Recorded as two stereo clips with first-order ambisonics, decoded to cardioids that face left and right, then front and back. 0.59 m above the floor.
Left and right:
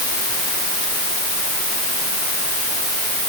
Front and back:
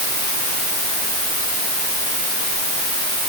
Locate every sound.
Only background noise.